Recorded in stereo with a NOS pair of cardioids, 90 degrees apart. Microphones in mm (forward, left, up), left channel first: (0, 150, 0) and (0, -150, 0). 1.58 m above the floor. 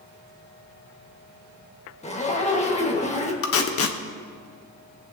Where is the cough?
No cough in this recording.